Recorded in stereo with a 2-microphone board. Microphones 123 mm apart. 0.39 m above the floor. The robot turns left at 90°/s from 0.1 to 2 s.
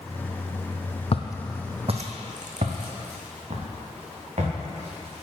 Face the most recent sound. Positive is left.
turn(degrees=-65)  # may be behind; listen again after turning